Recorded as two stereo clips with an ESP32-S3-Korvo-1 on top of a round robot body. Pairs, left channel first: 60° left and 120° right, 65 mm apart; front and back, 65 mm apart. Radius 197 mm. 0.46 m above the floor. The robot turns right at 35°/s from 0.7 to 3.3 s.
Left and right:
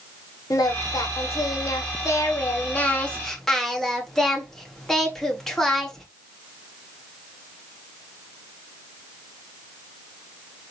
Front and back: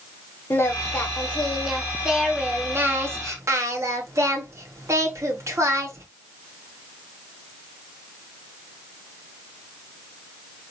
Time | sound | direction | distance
0.5 | singing | 55° left | 1.7 m